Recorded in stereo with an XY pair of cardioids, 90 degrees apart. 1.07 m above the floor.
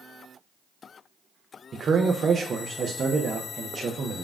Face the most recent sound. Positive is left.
turn(degrees=-50)